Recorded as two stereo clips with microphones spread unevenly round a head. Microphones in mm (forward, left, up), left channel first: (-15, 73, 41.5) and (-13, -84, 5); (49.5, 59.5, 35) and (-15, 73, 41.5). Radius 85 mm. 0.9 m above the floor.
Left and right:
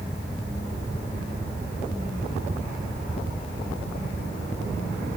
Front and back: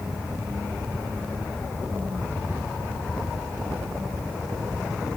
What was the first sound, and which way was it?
Only background noise.